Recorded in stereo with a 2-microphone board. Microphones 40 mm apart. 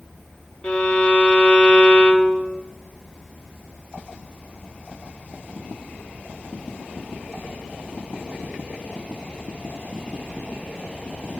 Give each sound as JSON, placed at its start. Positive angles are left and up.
{"t": 0.6, "sound": "a violin", "side_deg": 25, "distance_m": 0.6}